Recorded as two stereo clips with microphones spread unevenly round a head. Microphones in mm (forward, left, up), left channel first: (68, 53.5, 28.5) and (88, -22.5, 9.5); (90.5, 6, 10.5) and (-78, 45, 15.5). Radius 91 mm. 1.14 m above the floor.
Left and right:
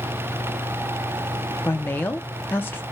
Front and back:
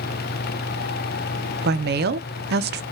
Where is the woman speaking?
175° right, 0.6 m.